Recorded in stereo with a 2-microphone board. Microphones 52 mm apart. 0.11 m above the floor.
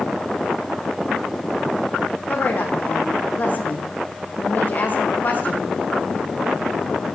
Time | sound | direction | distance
2.3 | a woman speaking | 40° left (ahead or behind) | 6 m